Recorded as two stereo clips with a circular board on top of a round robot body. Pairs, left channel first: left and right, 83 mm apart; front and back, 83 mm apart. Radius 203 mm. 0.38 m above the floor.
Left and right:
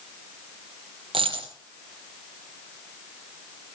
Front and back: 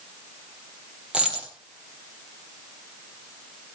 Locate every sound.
1.1 s a dropped coin: 100° right, 2.5 m